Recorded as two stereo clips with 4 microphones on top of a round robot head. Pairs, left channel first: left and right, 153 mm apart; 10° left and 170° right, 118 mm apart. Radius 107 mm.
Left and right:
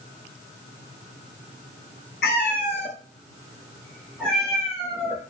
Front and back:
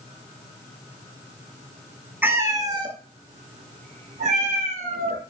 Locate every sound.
2.2 s a cat meowing: 115° left, 1.3 m; by 5.2 s 175° right, 3 m